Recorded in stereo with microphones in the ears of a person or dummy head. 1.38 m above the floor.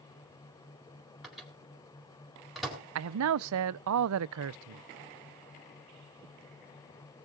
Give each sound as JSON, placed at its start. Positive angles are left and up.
{"t": 1.2, "sound": "a microwave", "side_deg": 0, "distance_m": 4.0}
{"t": 3.0, "sound": "a man speaking", "side_deg": -80, "distance_m": 0.5}